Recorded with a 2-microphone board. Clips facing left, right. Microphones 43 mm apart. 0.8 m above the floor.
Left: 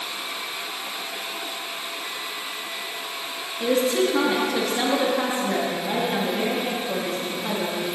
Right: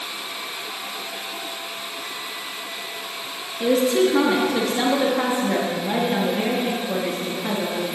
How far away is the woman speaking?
About 1.0 m.